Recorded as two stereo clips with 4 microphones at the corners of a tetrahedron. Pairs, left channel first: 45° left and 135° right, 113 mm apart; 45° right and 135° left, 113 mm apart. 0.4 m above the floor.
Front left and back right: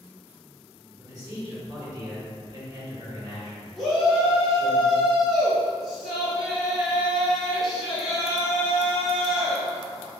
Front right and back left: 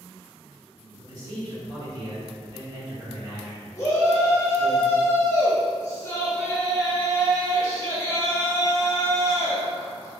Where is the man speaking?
175° left, 1.5 m.